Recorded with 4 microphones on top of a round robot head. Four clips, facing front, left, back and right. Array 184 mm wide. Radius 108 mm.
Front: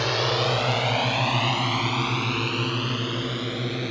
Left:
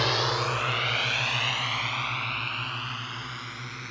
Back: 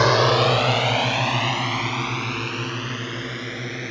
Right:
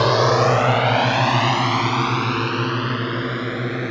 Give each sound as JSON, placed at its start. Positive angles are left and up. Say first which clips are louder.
{"t": 0.0, "sound": "a drone", "louder": "right 11 dB, back 7 dB", "azimuth_deg": -130}